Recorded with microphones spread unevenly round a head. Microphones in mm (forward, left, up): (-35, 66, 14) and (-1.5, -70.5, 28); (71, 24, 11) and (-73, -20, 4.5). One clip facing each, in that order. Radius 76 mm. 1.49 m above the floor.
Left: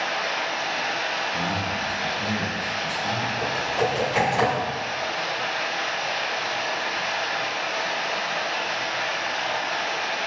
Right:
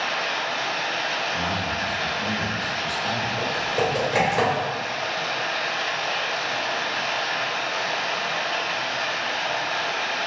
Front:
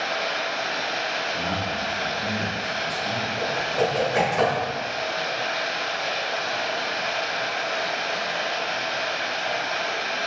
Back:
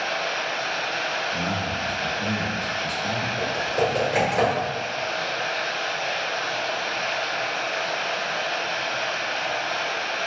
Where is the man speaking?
160° right, 1.1 m.